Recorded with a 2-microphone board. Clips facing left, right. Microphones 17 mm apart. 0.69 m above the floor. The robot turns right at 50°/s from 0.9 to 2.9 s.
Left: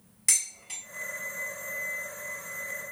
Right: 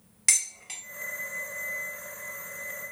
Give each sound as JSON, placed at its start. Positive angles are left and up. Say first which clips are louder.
{"t": 0.3, "sound": "dishes clattering", "louder": "right 2 dB", "side_deg": -30, "distance_m": 0.7}